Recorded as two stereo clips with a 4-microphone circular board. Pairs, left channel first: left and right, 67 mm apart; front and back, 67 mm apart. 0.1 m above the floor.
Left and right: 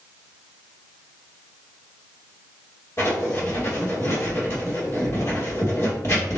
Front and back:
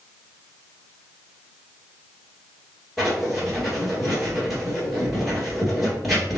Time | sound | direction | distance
3.0 | writing | 90° left | 2 m